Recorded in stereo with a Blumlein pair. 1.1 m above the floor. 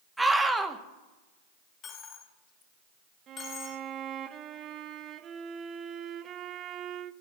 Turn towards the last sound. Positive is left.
turn(degrees=-30)